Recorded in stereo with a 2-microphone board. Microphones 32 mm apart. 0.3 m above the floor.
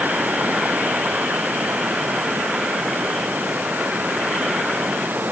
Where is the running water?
65° right (ahead or behind).